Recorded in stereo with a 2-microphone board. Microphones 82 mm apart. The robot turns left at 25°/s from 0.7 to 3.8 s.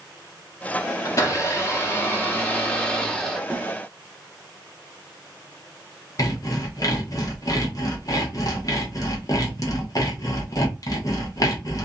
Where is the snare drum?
25° right (ahead or behind), 0.9 m; by 3.7 s 30° right (ahead or behind), 0.9 m.